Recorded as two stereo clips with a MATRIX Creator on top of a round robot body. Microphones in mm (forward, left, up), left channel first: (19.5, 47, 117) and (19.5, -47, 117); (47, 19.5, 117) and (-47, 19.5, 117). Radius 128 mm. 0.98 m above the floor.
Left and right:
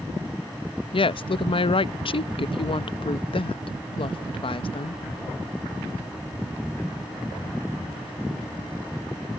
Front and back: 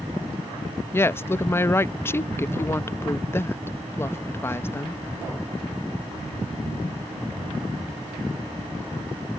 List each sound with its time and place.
0.9 s a woman speaking: 65° left